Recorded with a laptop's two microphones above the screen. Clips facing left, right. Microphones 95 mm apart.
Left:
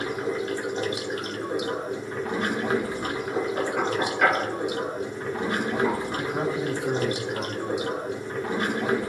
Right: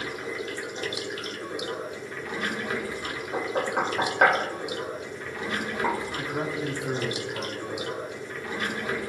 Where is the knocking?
50° right (ahead or behind), 2.5 m.